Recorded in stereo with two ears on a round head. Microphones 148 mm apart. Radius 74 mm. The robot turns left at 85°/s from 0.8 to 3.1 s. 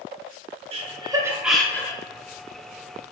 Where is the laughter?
40° right (ahead or behind), 0.7 m; by 2.0 s 25° left (ahead or behind), 0.7 m.